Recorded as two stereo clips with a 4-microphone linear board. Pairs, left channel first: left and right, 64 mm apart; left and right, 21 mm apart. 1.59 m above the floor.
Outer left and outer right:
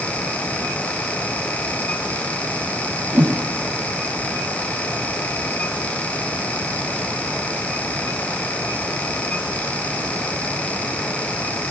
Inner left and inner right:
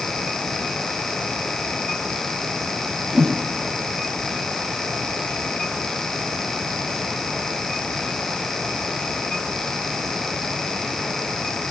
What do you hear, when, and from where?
3.1 s a whoosh: 30° right (ahead or behind), 1.5 m